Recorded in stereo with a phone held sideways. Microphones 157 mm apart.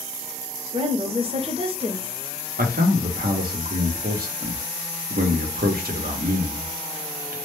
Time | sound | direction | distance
0.7 | a woman speaking | 40° right (ahead or behind) | 0.6 m
2.6 | a man speaking | 75° right (ahead or behind) | 0.6 m